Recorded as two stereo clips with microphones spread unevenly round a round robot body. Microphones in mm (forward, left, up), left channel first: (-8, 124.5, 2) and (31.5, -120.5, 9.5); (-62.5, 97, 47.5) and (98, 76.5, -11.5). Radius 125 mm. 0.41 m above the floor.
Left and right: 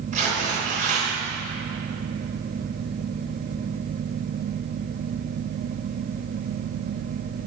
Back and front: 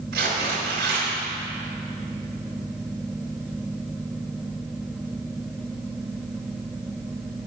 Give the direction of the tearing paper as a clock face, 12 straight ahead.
1 o'clock.